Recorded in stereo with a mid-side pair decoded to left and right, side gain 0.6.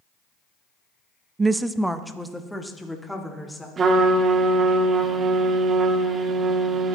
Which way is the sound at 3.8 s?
35° right.